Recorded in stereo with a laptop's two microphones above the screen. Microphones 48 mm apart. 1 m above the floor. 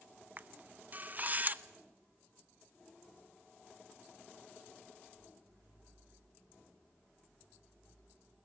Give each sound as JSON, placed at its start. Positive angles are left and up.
{"t": 0.4, "sound": "a camera shutter", "side_deg": -35, "distance_m": 0.8}